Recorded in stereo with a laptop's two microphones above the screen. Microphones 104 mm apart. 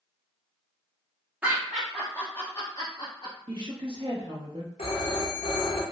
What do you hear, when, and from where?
1.4 s laughter: 15° right (ahead or behind), 0.7 m; by 3.4 s 45° left (ahead or behind), 1.1 m
3.5 s a woman speaking: 50° right (ahead or behind), 0.8 m
4.8 s a phone ringing: 75° left (ahead or behind), 0.9 m